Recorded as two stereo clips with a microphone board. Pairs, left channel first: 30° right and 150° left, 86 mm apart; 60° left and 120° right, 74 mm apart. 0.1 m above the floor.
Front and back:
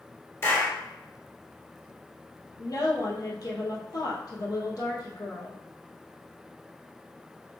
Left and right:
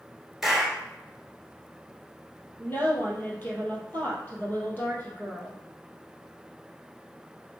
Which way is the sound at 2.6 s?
Straight ahead.